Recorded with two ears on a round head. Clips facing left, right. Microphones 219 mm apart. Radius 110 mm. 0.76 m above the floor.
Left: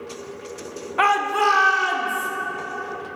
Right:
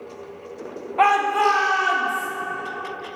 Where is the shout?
20° left (ahead or behind), 0.7 m; by 2.3 s 15° left (ahead or behind), 1.5 m.